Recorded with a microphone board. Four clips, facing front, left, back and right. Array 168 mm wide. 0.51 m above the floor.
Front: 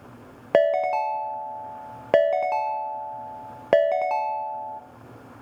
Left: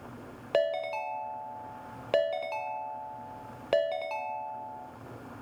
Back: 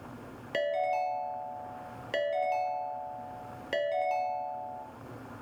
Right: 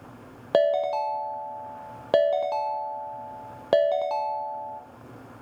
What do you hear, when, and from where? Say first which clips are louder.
0.5 s a ringtone: right 7 dB, front 10 dB; 25° right, 0.5 m